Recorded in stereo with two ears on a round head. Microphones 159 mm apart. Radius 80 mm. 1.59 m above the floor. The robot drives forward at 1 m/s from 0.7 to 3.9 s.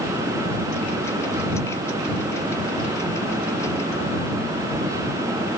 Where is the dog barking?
I don't hear a dog barking.